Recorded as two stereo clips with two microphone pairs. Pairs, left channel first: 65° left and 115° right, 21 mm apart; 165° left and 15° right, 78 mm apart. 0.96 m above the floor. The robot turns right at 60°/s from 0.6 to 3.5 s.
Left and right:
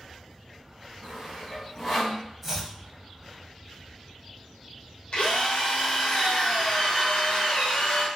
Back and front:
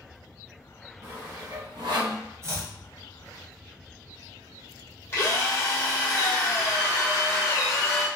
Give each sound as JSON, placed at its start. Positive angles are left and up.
{"t": 1.0, "sound": "sawing", "azimuth_deg": -55, "distance_m": 1.3}
{"t": 2.4, "sound": "chopping", "azimuth_deg": -40, "distance_m": 0.9}
{"t": 5.1, "sound": "a drill", "azimuth_deg": 110, "distance_m": 1.2}